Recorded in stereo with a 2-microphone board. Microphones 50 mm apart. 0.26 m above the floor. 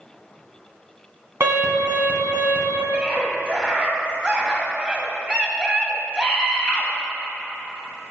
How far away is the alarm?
About 2 m.